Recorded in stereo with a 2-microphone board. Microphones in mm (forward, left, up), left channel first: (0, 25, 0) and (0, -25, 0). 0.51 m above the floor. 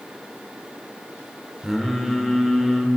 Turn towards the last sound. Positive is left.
turn(degrees=-5)  # may be behind; listen again after turning